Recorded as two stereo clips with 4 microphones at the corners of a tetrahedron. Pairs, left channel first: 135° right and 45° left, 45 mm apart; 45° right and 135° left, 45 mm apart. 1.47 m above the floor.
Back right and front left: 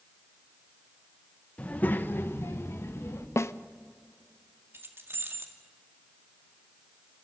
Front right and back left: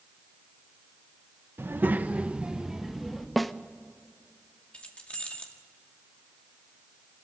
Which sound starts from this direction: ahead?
Keys jangling, at 4.7 s.